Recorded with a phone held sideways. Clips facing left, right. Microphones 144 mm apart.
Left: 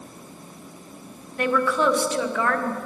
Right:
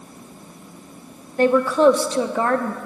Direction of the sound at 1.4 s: 35° right (ahead or behind).